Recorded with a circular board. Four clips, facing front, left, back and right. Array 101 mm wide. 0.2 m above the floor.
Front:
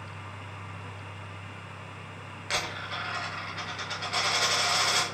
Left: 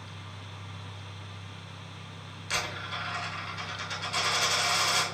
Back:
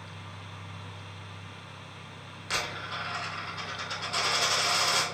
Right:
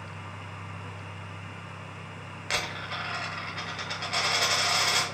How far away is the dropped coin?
About 0.8 m.